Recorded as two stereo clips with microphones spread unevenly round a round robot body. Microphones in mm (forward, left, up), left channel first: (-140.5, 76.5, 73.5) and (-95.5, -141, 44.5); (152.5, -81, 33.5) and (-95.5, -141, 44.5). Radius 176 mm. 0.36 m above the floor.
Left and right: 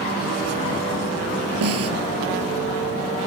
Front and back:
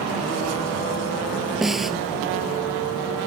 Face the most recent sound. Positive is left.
turn(degrees=-80)